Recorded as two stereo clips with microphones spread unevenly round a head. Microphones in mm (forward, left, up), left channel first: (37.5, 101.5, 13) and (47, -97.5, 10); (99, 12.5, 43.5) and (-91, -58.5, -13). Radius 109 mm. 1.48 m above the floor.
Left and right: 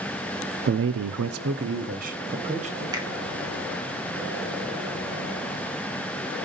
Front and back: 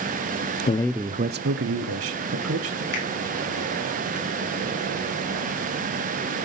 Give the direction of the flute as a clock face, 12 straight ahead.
No flute in this recording.